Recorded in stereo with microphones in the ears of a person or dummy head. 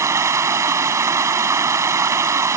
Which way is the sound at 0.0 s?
15° right (ahead or behind).